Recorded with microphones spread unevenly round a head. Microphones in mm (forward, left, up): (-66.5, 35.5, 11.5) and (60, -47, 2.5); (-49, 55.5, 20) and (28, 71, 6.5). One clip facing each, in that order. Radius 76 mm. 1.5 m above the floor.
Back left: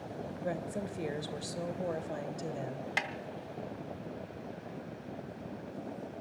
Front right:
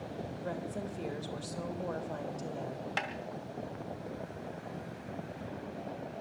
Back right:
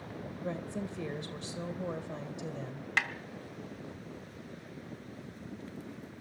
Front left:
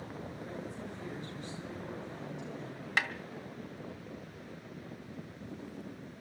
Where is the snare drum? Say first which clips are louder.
Front right 1 dB, even; 95° left, 1.4 m.